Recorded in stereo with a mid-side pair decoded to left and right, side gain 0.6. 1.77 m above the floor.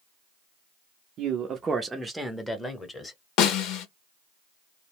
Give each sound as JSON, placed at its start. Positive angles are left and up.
{"t": 1.2, "sound": "a man speaking", "azimuth_deg": -55, "distance_m": 0.6}
{"t": 3.4, "sound": "a snare drum", "azimuth_deg": 70, "distance_m": 0.6}